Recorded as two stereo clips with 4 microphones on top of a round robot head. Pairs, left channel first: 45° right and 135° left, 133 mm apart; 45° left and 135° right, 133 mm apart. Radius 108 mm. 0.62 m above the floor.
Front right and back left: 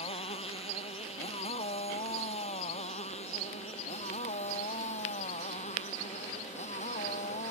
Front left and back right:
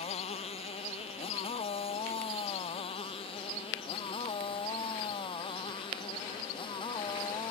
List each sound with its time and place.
0.0 s a motorcycle: straight ahead; by 7.5 s 10° right